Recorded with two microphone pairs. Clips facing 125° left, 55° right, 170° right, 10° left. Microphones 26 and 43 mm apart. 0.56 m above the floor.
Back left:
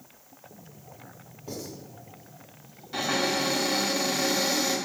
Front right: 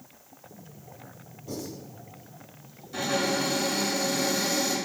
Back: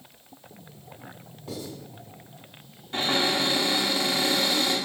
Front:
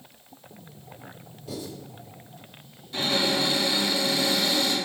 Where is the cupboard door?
170° left, 0.7 m.